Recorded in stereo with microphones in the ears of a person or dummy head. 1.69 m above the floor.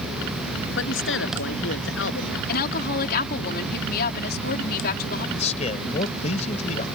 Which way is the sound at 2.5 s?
60° left (ahead or behind).